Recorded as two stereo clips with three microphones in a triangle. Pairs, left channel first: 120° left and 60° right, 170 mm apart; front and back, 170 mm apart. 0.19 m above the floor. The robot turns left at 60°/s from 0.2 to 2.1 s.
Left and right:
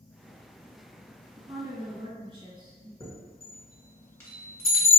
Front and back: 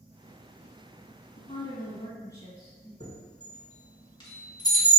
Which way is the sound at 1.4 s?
5° right.